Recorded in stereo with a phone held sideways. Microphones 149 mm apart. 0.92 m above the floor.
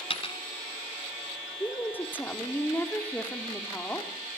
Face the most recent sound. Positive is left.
turn(degrees=15)  # may be behind; listen again after turning